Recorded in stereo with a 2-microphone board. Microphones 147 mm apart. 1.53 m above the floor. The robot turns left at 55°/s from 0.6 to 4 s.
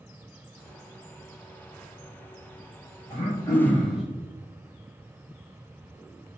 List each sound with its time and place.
3.1 s throat clearing: 45° left, 1.0 m; by 4.0 s 5° right, 1.0 m